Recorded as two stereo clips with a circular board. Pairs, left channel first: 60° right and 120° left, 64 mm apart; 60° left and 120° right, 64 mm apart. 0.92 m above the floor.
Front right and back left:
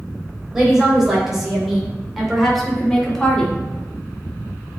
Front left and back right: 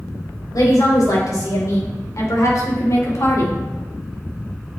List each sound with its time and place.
0.5 s a woman speaking: 40° left, 3.5 m; by 3.6 s 20° left, 1.8 m